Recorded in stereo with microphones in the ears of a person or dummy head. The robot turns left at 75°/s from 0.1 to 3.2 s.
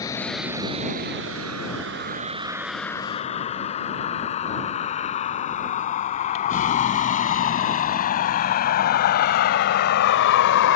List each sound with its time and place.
0.0 s a vehicle: 15° left (ahead or behind); by 10.8 s 70° left (ahead or behind)